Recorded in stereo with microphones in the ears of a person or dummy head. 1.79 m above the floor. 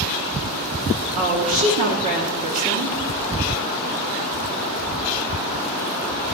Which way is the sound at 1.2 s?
35° right (ahead or behind).